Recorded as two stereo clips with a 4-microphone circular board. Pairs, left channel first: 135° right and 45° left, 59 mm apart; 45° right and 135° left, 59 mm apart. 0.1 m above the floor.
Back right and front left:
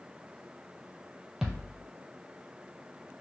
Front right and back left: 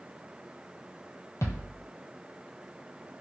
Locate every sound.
1.4 s a thud: 35° right, 0.8 m